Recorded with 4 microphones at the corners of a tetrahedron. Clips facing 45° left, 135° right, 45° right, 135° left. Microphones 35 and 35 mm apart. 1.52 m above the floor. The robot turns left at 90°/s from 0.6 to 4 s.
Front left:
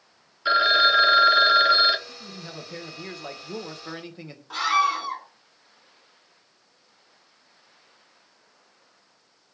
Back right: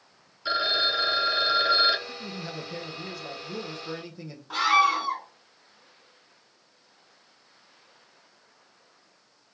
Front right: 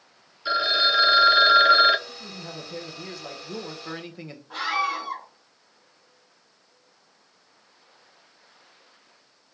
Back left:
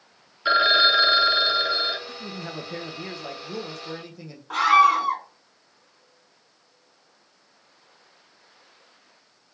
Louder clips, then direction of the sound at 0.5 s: Front left 7 dB, back left 4 dB; 90° left.